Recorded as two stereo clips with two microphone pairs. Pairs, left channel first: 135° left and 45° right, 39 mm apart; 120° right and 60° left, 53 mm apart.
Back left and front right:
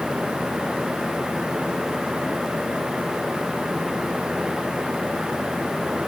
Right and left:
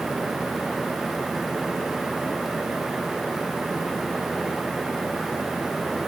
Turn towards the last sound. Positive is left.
No sound to turn to.